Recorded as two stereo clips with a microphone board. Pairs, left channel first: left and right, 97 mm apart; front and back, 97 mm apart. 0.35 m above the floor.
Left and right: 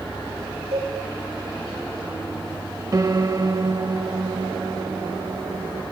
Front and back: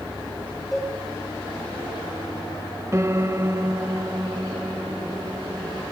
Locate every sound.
0.7 s a cowbell: 90° right, 8.5 m
2.9 s a piano: 130° right, 1.0 m